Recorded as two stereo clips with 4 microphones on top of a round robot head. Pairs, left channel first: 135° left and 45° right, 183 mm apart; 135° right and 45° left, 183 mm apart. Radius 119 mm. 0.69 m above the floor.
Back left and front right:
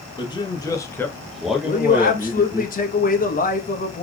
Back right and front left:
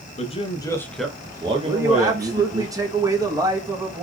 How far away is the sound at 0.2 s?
About 1.1 m.